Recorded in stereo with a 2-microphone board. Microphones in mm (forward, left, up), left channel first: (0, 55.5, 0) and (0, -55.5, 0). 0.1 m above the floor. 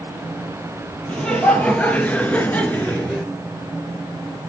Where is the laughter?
10° left (ahead or behind), 2.5 m; by 3.3 s 5° left (ahead or behind), 1.6 m.